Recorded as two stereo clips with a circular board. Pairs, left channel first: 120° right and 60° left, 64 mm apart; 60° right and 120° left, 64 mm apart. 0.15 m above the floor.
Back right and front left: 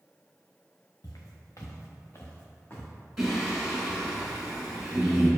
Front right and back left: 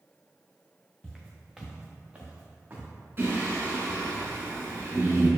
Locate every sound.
1.0 s footsteps: 140° right, 0.9 m; by 2.9 s straight behind, 1.5 m
3.2 s singing: 140° left, 1.4 m